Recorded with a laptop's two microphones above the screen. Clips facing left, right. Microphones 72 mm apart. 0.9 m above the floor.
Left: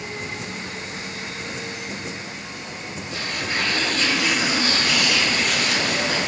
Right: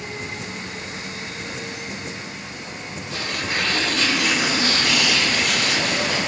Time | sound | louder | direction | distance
3.1 | tearing paper | right 1 dB | 70° right (ahead or behind) | 1.3 m